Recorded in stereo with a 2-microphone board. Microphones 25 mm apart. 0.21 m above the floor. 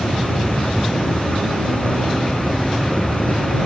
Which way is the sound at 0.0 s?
65° left (ahead or behind).